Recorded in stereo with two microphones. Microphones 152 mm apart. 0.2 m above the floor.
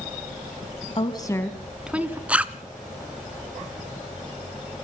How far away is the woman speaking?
About 1.3 m.